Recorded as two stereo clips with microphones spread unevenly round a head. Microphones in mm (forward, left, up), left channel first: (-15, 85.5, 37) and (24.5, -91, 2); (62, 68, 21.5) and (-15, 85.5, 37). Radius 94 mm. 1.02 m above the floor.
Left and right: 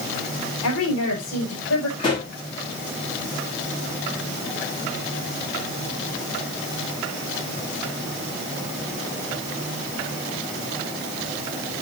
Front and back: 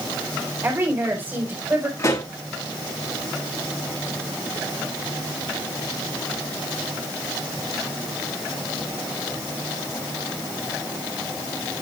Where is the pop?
40° left, 6.5 m.